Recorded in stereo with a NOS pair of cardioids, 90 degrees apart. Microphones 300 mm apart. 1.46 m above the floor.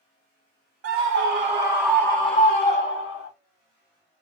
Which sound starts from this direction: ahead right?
A scream, at 0.8 s.